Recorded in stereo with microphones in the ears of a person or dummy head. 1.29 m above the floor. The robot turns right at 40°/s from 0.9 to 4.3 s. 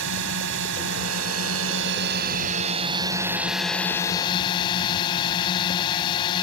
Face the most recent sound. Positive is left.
turn(degrees=30)